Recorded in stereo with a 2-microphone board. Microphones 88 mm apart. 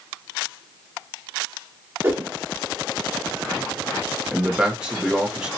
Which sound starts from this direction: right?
A whoosh, at 2.0 s.